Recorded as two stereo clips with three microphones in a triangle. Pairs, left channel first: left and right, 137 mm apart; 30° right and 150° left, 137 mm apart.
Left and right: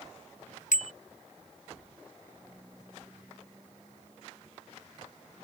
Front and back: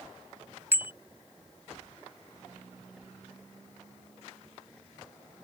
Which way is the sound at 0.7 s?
75° left.